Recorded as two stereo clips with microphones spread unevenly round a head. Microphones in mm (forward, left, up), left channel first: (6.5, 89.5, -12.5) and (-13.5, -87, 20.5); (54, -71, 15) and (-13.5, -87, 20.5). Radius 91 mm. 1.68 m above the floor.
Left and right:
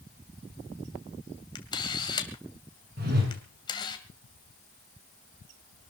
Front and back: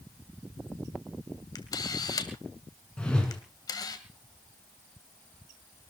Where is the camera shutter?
15° left, 2 m.